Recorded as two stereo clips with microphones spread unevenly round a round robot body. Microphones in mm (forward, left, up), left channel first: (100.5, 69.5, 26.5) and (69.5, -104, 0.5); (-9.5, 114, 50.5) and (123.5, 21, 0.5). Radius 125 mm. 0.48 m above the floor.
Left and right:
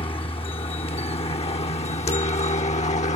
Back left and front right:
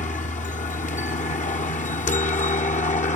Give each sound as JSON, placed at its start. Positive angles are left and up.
{"t": 0.0, "sound": "a helicopter", "azimuth_deg": 130}